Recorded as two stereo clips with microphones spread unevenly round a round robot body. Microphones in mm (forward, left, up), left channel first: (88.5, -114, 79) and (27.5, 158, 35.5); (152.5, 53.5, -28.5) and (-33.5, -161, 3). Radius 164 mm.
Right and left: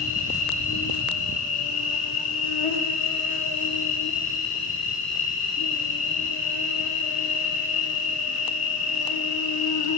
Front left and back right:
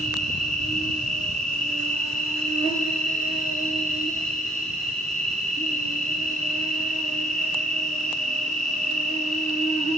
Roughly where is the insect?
Ahead right.